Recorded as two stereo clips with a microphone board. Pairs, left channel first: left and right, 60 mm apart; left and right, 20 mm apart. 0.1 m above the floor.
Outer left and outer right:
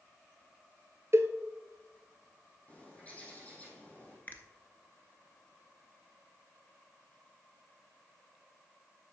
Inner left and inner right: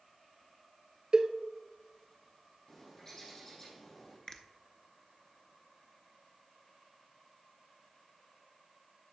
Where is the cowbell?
50° right (ahead or behind), 0.8 m.